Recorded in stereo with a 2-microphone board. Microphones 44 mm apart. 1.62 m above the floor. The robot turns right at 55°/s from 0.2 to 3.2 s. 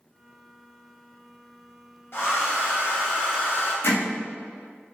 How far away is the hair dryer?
About 0.9 m.